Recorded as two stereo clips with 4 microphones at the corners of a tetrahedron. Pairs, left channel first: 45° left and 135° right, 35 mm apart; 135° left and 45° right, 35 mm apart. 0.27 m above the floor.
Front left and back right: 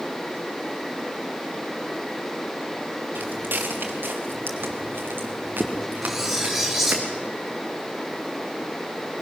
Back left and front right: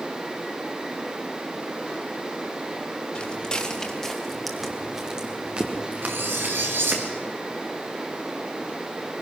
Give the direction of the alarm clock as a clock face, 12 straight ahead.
No alarm clock in this recording.